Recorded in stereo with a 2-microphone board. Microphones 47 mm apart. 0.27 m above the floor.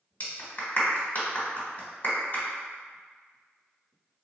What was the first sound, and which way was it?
A clap, 50° left (ahead or behind).